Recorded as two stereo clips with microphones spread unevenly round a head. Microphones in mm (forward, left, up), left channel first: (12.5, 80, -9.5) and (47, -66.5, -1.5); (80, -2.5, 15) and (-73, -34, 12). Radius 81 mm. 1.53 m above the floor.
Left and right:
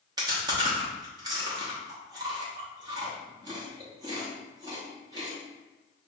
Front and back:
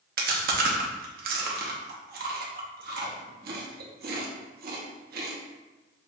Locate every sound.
0.2 s chewing: 140° right, 0.9 m